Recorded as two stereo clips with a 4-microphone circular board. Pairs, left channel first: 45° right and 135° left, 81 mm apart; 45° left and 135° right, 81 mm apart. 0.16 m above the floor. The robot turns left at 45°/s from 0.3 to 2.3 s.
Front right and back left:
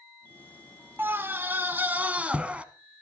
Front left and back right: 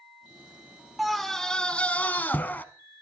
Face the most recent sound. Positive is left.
turn(degrees=80)